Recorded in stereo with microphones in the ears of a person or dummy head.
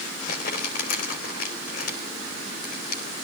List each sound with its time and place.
0.3 s crumpling: 55° left (ahead or behind), 3 m